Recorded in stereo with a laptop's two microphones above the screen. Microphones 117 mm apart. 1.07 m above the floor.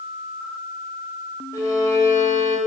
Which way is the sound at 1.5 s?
30° left (ahead or behind).